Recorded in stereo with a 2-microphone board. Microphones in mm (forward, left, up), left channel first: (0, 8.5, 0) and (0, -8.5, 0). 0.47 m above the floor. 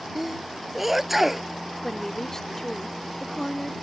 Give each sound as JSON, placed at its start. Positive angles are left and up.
{"t": 0.1, "sound": "a sneeze", "side_deg": -5}
{"t": 1.8, "sound": "a woman speaking", "side_deg": 30}